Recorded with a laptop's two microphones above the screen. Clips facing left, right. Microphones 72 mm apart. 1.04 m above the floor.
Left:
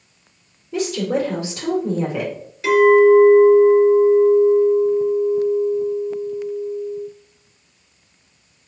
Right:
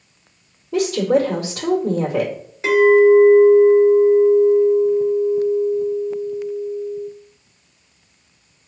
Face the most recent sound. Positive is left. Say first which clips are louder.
# even
turn(degrees=-30)  # may be behind; listen again after turning